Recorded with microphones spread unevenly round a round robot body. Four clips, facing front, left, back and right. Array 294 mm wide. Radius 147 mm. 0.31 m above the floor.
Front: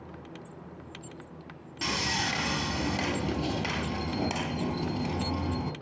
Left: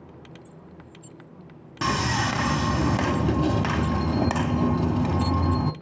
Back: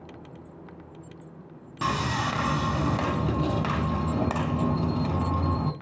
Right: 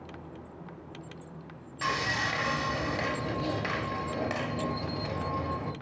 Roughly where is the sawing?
Left.